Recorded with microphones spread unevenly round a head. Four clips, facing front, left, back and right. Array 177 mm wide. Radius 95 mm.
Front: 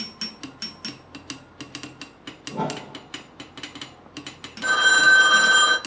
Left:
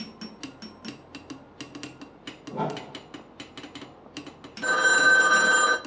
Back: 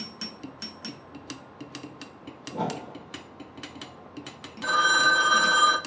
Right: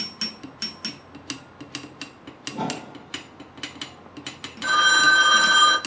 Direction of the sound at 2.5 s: 10° left.